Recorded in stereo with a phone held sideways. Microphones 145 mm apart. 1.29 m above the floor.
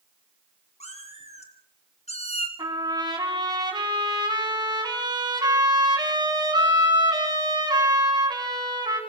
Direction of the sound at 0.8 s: 45° left (ahead or behind).